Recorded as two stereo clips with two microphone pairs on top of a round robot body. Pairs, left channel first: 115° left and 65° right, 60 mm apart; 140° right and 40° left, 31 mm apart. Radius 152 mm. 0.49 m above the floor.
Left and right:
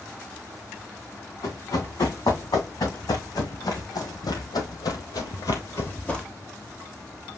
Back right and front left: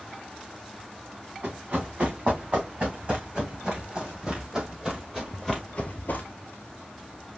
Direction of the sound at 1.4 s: 90° left.